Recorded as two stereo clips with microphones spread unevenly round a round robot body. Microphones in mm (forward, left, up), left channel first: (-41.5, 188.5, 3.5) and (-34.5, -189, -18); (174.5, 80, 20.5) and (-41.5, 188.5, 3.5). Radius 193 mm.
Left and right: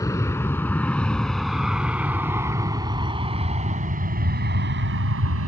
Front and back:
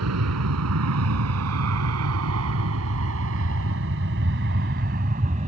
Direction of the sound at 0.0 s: 175° left.